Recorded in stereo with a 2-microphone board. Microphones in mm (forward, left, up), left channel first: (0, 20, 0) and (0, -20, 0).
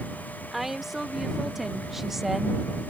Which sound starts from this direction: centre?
A woman speaking, at 0.5 s.